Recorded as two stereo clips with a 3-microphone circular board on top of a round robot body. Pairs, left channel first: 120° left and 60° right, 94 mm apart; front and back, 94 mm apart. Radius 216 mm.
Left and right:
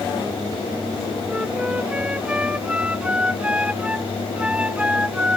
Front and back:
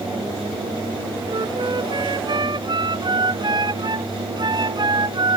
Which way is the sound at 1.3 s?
140° right.